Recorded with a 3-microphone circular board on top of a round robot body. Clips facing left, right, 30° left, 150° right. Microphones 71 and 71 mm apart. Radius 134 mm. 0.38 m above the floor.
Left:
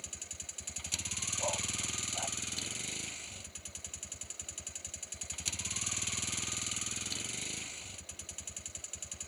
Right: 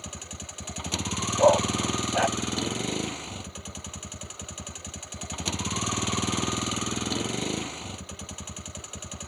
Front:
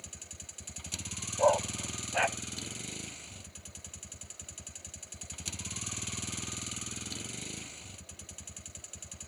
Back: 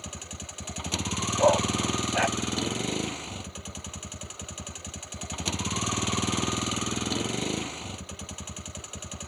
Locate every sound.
0.0 s a vehicle: 120° right
1.4 s a dog barking: 70° right